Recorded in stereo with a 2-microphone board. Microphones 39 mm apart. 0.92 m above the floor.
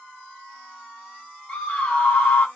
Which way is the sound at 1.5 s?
35° left (ahead or behind).